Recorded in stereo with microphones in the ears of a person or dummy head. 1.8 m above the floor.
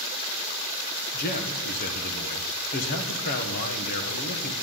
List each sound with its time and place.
1.1 s a man speaking: 45° left (ahead or behind), 1.6 m